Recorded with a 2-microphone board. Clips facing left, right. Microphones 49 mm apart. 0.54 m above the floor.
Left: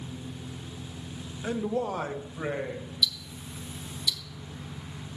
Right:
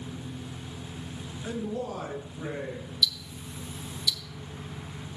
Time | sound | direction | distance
1.4 | a man speaking | 35° left (ahead or behind) | 0.8 m
3.0 | ticking | 10° left (ahead or behind) | 0.9 m